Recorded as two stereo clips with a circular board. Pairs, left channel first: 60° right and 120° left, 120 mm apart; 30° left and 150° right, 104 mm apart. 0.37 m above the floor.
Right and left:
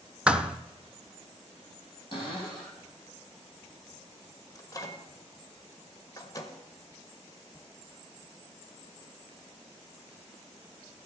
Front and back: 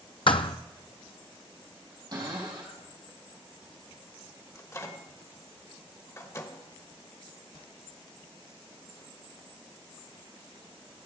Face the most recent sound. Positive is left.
turn(degrees=-15)